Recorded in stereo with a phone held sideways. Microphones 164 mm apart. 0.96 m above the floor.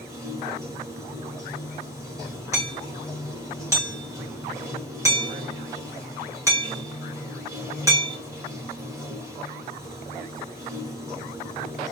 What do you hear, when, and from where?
0.0 s running water: 20° right (ahead or behind), 2.5 m
2.5 s hammering: 15° right (ahead or behind), 2 m